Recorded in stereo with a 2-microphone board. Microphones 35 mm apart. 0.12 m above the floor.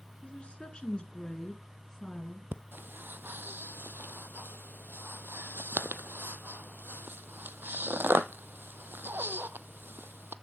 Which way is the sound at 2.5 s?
80° right.